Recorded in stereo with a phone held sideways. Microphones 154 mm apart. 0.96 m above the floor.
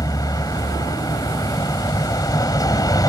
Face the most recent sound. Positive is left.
turn(degrees=25)  # may be behind; listen again after turning